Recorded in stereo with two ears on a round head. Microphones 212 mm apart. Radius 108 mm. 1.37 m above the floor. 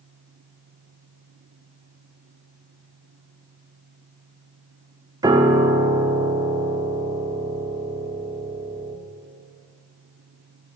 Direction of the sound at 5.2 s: 15° right (ahead or behind).